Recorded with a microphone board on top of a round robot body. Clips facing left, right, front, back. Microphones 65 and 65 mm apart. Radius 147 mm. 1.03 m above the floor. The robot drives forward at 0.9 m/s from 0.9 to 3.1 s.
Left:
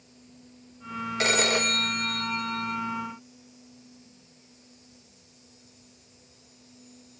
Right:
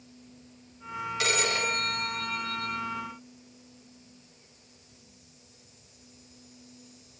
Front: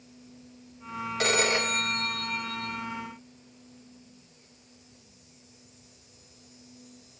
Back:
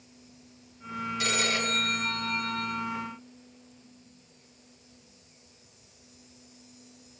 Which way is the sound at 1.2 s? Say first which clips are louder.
Left 4 dB, front 4 dB; 40° left.